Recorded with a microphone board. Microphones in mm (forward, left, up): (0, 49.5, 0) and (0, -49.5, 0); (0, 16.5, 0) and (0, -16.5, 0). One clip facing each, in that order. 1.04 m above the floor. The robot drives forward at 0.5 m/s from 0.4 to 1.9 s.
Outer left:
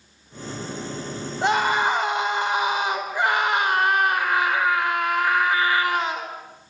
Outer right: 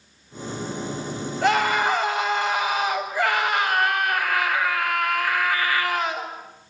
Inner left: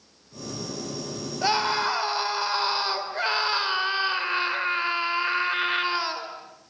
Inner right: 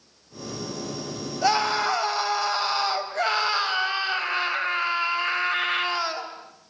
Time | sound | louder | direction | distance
1.4 | a scream | even, inner right 2 dB | 20° left (ahead or behind) | 4.5 m